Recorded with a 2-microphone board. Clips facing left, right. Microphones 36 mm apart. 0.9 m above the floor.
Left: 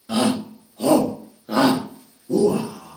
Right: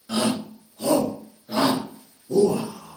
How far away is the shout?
About 0.9 m.